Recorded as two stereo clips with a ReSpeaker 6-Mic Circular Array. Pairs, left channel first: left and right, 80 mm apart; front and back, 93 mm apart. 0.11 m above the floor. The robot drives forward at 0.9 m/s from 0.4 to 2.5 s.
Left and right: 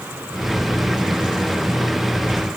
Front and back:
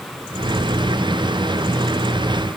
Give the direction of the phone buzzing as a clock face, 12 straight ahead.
No phone buzzing in this recording.